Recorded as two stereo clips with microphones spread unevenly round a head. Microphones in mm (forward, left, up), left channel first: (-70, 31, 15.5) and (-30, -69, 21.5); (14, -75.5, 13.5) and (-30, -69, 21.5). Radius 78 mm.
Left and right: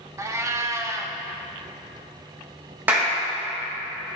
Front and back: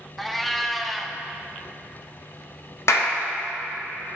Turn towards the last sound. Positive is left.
turn(degrees=10)